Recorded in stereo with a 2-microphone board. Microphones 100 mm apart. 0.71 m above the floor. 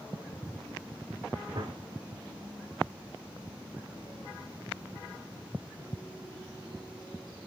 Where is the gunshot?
50° right (ahead or behind), 5.5 m.